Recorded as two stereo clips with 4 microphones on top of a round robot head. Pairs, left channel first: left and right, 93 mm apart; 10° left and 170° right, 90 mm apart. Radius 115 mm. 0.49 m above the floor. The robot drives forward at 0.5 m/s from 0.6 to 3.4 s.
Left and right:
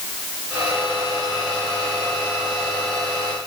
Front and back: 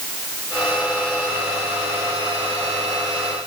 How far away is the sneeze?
I don't hear a sneeze.